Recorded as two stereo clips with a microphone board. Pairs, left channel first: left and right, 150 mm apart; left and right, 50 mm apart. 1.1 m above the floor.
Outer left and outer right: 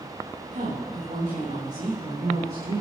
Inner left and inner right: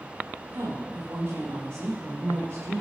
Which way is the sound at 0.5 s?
60° right (ahead or behind).